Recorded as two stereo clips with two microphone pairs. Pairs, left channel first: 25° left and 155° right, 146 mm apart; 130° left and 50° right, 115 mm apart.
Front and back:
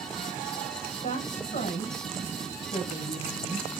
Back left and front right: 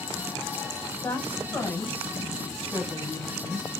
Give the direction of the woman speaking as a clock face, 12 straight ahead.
10 o'clock.